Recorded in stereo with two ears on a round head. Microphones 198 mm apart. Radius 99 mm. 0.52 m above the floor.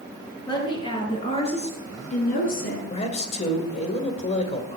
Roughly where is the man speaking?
Left.